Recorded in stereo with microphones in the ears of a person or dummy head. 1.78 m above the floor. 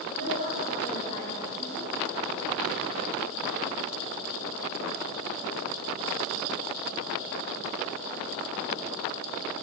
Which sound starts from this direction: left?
A woman speaking, at 0.1 s.